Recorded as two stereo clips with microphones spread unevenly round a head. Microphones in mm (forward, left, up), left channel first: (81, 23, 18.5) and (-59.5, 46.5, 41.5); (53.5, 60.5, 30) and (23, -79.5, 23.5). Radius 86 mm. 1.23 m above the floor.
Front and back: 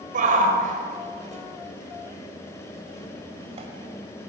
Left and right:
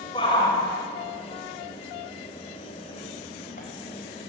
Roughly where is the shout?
Behind left.